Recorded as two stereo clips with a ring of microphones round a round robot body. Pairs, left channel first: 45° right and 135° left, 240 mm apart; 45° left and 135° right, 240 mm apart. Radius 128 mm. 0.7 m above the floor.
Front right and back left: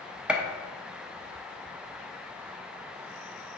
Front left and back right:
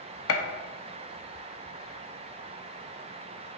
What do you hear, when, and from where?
0.3 s a gunshot: 50° left, 0.9 m